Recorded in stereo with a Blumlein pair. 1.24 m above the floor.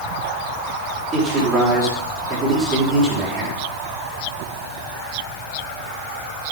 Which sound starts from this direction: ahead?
A man speaking, at 1.1 s.